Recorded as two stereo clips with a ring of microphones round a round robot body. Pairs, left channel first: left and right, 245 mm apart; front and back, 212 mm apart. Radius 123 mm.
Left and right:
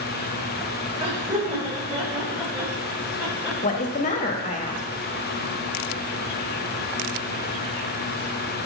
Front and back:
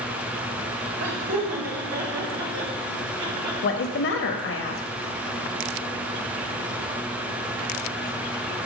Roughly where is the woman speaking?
Ahead left.